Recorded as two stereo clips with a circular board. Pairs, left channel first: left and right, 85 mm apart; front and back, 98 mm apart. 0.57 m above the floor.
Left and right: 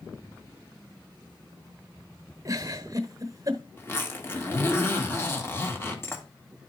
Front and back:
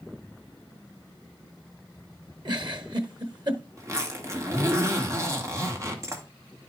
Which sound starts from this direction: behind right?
A giggle, at 2.5 s.